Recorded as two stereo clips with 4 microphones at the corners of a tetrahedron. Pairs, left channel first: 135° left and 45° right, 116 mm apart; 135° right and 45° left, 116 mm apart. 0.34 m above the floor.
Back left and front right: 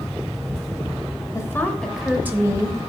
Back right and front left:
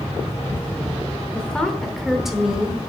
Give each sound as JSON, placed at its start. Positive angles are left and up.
{"t": 1.3, "sound": "a woman speaking", "azimuth_deg": 150, "distance_m": 1.0}